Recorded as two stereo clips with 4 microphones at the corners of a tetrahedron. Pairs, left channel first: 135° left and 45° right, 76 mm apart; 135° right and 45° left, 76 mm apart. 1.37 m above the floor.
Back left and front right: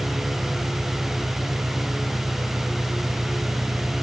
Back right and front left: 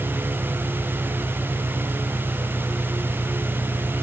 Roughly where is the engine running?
Ahead right.